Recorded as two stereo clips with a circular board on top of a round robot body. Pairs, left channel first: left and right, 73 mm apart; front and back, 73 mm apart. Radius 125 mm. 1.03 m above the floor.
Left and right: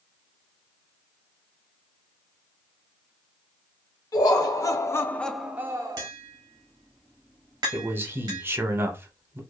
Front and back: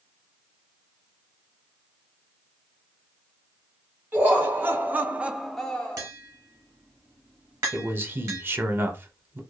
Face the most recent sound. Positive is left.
turn(degrees=-135)